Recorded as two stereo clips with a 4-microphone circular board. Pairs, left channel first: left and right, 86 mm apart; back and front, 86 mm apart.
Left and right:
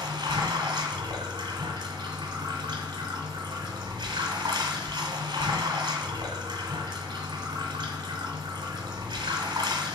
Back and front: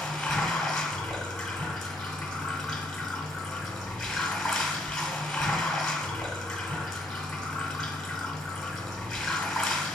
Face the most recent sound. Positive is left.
turn(degrees=-95)